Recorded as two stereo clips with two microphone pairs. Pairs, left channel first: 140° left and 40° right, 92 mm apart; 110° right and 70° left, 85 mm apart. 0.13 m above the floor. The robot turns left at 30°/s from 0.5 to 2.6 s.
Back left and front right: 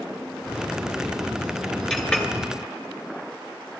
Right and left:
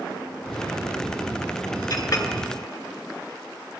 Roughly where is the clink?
Behind right.